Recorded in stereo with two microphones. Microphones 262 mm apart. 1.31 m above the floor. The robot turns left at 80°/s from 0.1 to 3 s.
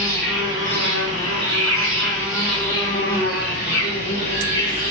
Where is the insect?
15° left, 1.1 m; by 4.9 s 145° left, 1.1 m.